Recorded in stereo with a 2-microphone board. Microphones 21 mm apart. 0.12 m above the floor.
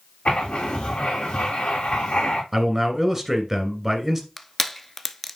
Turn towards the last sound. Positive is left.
turn(degrees=15)  # may be behind; listen again after turning